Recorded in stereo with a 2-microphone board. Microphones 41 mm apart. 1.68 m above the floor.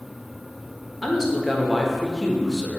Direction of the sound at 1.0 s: 5° right (ahead or behind).